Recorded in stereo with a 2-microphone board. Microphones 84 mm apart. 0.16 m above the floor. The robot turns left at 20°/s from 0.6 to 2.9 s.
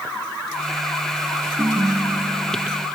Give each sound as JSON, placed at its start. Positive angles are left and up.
{"t": 1.6, "sound": "a ringtone", "side_deg": -30, "distance_m": 1.8}